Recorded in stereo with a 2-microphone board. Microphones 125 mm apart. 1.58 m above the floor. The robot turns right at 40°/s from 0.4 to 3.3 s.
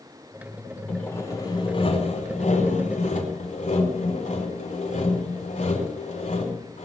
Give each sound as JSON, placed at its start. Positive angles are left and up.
{"t": 0.9, "sound": "sawing", "azimuth_deg": 10, "distance_m": 4.5}